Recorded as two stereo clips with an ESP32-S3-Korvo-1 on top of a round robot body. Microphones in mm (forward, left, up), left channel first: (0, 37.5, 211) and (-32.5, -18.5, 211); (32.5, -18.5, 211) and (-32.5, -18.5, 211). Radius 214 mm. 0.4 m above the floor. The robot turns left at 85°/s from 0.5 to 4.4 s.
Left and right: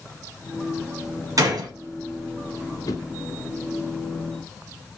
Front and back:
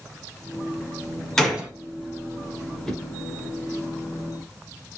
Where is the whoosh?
85° left, 1.5 m; by 3.0 s 70° left, 1.5 m.